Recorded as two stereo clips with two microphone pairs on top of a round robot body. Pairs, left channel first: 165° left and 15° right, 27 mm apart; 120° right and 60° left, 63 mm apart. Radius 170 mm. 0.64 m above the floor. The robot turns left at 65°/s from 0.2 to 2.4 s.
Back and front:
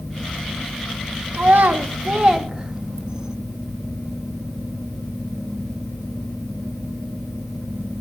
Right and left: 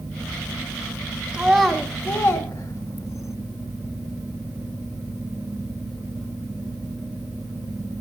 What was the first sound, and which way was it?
A child speaking, 10° right.